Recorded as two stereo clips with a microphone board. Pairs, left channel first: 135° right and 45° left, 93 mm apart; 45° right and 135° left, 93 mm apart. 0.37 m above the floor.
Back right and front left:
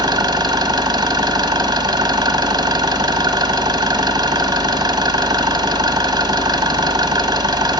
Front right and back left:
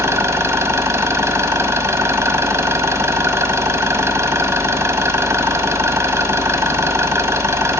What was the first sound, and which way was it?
An engine running, 75° left.